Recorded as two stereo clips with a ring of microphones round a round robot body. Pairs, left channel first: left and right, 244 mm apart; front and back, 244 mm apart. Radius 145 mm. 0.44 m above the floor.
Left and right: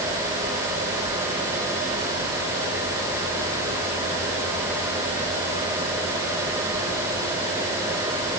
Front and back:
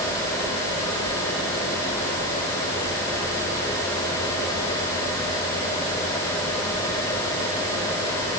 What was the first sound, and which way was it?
Only background noise.